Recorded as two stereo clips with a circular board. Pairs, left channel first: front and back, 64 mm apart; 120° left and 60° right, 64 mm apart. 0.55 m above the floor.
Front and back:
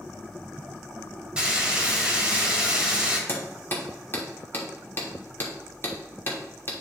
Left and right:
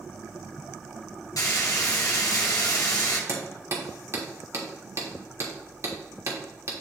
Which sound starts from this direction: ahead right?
Hammering, at 3.3 s.